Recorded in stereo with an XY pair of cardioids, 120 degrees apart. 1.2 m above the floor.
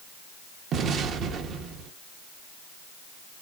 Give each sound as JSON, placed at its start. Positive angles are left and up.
{"t": 0.7, "sound": "an explosion", "azimuth_deg": -60, "distance_m": 0.8}